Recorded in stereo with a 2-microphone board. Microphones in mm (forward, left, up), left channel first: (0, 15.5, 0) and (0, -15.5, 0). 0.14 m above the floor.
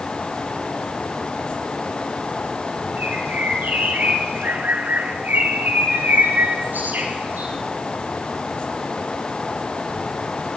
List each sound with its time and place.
3.0 s a bird: 75° right (ahead or behind), 6.5 m